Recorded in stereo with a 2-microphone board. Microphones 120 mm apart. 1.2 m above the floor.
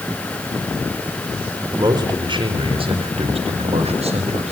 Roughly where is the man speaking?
Right.